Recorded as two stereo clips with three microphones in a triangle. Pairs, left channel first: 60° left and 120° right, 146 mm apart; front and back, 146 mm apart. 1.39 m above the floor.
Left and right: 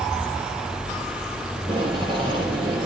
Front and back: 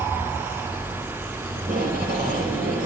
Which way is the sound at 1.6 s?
175° right.